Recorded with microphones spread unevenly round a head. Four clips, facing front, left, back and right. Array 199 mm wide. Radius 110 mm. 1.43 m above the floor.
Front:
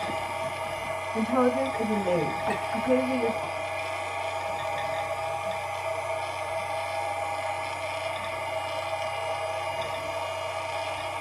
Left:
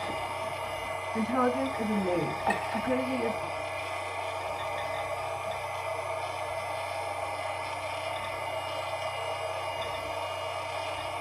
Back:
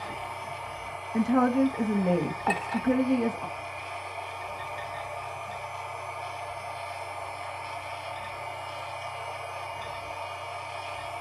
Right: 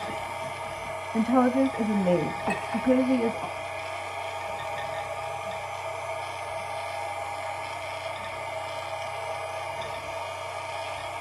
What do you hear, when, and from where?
0.0 s a machine running: 10° right, 1.2 m
1.1 s a woman speaking: 120° right, 1.7 m
2.5 s a clink: 170° right, 1.7 m